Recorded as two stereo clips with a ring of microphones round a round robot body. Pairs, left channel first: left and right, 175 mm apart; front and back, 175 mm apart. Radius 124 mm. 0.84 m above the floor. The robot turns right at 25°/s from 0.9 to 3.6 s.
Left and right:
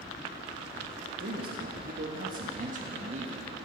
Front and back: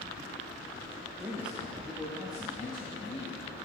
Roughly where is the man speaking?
Right.